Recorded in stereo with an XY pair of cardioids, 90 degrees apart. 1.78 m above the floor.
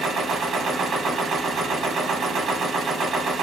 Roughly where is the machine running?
Right.